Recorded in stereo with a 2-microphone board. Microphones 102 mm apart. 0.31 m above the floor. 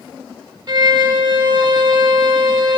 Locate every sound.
0.7 s a violin: 45° right (ahead or behind), 0.7 m